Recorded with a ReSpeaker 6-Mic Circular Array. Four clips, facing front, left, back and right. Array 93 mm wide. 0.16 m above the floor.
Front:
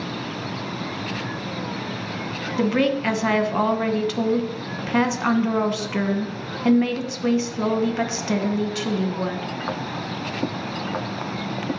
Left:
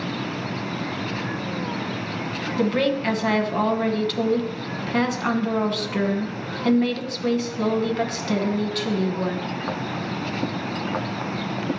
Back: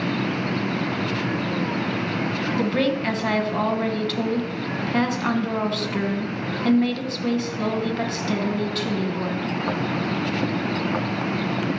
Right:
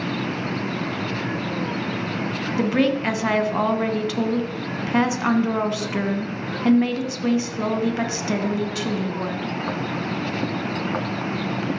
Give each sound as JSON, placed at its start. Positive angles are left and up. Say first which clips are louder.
{"t": 2.6, "sound": "a woman speaking", "louder": "right 1 dB, front 3 dB", "azimuth_deg": -50, "distance_m": 1.0}